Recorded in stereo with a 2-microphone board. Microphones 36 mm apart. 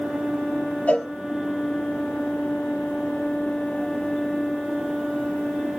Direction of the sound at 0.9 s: 45° left (ahead or behind).